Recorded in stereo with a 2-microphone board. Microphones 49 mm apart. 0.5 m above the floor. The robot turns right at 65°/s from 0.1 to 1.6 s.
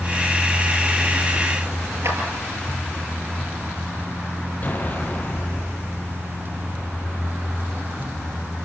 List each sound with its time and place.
2.0 s a clap: 65° right (ahead or behind), 8.5 m
4.6 s an explosion: 35° left (ahead or behind), 4.5 m